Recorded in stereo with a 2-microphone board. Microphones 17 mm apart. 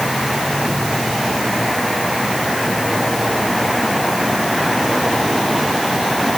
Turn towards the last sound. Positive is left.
No sound to turn to.